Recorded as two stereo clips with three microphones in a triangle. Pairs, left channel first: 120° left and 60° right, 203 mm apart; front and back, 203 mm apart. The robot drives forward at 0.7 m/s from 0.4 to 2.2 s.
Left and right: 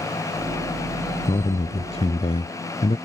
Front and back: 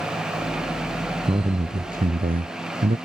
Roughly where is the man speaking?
Behind left.